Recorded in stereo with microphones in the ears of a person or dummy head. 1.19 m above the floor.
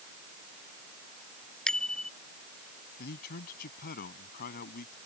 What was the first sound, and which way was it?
A bicycle bell, 5° left (ahead or behind).